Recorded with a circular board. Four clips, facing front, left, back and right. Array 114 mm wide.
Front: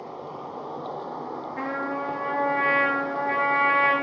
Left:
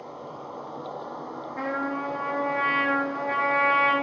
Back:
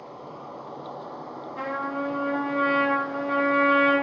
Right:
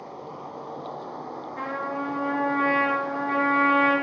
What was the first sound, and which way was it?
An insect, 10° right.